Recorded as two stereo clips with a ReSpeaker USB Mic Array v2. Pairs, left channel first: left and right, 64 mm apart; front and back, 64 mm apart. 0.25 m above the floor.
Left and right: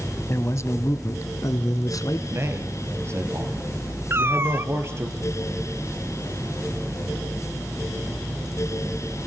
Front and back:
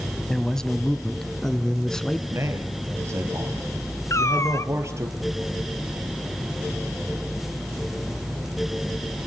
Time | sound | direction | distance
0.3 | a man speaking | 80° left | 1.3 m
2.3 | a man speaking | 135° right | 5 m
4.1 | a cat meowing | 40° right | 0.8 m